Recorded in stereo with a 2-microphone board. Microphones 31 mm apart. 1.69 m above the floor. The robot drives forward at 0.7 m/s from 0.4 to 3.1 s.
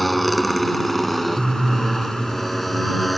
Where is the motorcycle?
Centre (ahead or behind).